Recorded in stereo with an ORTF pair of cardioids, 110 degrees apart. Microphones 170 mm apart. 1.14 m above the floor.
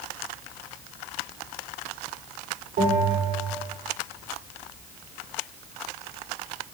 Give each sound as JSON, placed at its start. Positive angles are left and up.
{"t": 2.8, "sound": "a bell", "azimuth_deg": -60, "distance_m": 3.5}